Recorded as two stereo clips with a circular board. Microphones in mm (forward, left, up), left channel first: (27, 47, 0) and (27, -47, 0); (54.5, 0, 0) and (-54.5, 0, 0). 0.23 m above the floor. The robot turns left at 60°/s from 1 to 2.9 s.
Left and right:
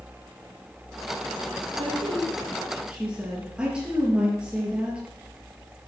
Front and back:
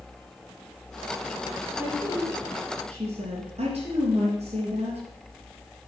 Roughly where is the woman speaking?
Right.